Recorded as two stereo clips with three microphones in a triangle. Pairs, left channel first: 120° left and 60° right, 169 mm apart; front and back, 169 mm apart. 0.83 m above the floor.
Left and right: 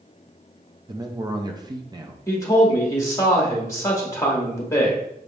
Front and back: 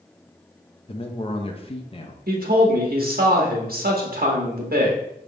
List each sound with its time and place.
0.9 s a man speaking: 15° right, 0.7 m
2.3 s a man speaking: 170° right, 1.2 m